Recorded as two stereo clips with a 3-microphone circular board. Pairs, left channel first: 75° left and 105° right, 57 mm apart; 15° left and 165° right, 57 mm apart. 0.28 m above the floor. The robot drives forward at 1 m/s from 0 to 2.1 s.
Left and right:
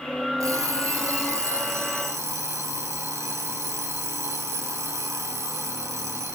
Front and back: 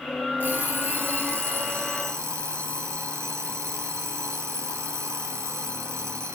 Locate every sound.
0.4 s an alarm clock: 110° right, 3.5 m; by 6.4 s 130° right, 4.5 m